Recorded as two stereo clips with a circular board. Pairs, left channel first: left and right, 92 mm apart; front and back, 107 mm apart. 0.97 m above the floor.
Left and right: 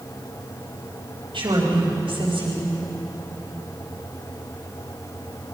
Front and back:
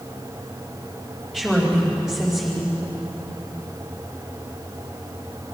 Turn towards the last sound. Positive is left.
turn(degrees=-80)